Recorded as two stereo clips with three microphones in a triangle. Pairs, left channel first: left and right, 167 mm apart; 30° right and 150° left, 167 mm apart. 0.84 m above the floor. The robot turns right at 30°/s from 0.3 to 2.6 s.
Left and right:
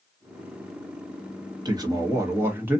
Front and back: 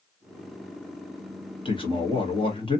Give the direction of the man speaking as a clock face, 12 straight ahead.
2 o'clock.